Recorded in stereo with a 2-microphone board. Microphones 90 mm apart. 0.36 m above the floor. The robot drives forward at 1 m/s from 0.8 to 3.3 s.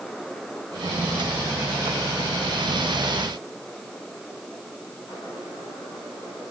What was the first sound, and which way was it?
Only background noise.